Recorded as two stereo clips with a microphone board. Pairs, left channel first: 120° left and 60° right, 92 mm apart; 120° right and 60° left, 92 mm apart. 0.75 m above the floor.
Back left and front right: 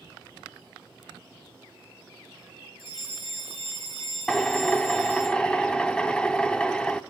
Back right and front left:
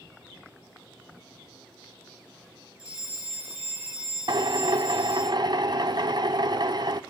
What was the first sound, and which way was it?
A fire alarm, 135° left.